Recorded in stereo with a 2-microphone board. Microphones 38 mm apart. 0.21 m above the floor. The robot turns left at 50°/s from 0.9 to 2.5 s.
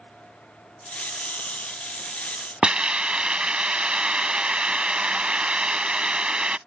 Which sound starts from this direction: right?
A hiss, at 2.6 s.